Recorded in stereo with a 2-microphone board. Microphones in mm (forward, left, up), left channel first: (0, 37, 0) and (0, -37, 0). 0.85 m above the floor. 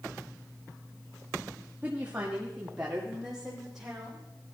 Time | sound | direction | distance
1.8 | a woman speaking | 25° right (ahead or behind) | 1.4 m